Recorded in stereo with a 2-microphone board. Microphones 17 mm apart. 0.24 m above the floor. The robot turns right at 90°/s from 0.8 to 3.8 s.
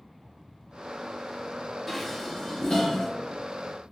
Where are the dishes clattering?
Centre (ahead or behind), 0.8 m; by 3.1 s 40° left (ahead or behind), 0.8 m.